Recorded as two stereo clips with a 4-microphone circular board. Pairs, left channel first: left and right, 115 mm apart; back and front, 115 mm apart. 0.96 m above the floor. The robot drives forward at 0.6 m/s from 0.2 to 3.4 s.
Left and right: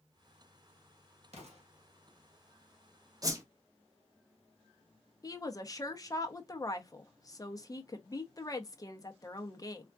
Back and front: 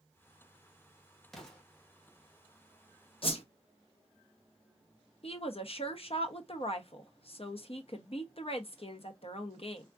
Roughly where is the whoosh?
Behind right.